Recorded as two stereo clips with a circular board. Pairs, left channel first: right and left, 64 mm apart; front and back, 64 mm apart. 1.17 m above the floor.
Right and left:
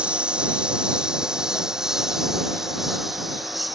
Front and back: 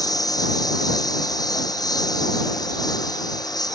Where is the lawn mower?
15° left; by 3.8 s straight ahead.